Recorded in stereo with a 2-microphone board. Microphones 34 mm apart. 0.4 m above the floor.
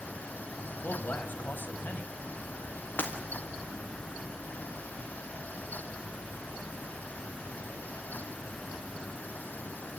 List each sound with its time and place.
0.7 s a man speaking: 60° left (ahead or behind), 2.5 m
3.0 s breaking glass: 65° left (ahead or behind), 4.5 m